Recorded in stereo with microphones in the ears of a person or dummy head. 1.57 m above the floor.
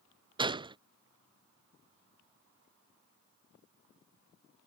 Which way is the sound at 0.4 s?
25° right (ahead or behind).